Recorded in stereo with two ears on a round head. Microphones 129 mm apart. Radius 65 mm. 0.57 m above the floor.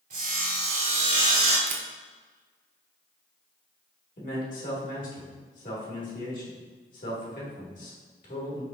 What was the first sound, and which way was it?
Sawing, 55° right (ahead or behind).